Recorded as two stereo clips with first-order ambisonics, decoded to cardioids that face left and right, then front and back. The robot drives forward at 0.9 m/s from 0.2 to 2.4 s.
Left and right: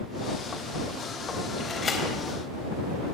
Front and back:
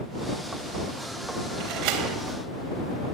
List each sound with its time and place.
1.6 s a door slam: 160° left, 4 m; by 2.2 s 165° left, 4.5 m